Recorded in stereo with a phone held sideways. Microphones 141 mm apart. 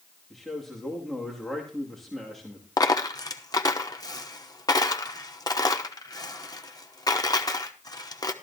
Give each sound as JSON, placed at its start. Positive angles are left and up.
{"t": 0.3, "sound": "a man speaking", "side_deg": 0, "distance_m": 2.5}
{"t": 2.8, "sound": "a dropped coin", "side_deg": 30, "distance_m": 1.0}